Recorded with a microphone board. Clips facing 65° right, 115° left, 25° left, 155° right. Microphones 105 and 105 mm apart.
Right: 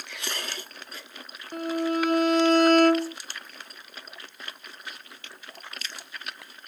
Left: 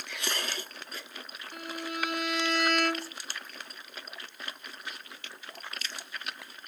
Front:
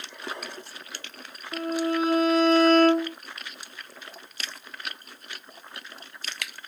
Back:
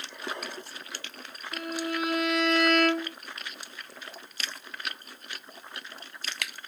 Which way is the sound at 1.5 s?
30° right.